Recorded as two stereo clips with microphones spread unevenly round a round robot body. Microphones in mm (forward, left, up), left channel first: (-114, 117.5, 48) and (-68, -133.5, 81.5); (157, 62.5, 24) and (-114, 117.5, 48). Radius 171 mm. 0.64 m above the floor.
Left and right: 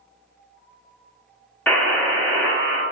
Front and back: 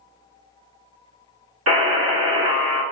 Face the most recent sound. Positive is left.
turn(degrees=175)